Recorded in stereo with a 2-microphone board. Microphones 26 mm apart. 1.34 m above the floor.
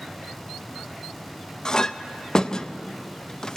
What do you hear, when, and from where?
1.6 s a clink: 30° left (ahead or behind), 0.6 m